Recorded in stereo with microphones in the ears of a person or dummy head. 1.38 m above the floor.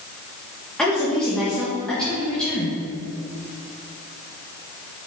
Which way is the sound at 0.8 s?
5° left (ahead or behind).